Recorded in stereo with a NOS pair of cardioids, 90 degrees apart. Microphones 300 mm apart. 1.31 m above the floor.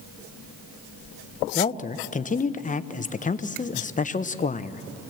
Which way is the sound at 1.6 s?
25° left.